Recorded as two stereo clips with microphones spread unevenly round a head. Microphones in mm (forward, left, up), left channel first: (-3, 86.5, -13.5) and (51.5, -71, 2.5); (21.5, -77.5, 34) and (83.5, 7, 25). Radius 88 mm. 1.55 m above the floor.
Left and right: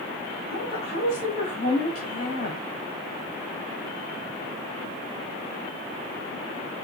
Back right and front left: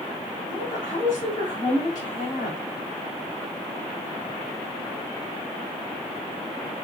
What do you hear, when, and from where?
0.5 s a woman speaking: 165° left, 2.5 m